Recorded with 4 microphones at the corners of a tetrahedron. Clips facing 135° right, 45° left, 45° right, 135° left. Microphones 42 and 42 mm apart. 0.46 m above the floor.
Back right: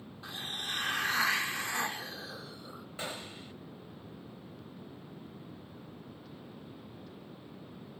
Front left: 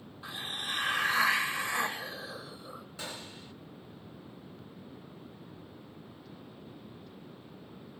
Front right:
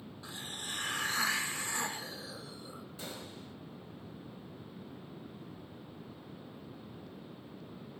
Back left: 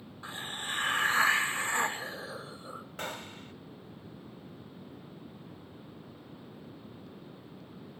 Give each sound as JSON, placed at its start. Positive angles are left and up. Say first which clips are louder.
{"t": 0.2, "sound": "a hiss", "louder": "front left 2 dB, back left 6 dB", "azimuth_deg": 125, "distance_m": 0.9}
{"t": 3.0, "sound": "a gunshot", "louder": "back right 4 dB, back left 7 dB", "azimuth_deg": 165, "distance_m": 1.6}